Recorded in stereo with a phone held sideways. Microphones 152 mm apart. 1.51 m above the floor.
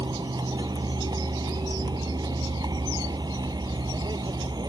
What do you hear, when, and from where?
0.0 s a vehicle: 25° right (ahead or behind)